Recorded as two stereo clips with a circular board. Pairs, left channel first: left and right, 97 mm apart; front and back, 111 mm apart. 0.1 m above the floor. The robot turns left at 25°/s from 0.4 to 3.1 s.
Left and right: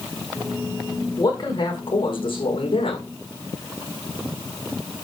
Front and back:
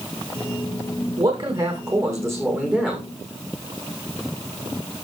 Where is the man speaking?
140° left, 6 m; by 3.1 s 95° left, 6 m.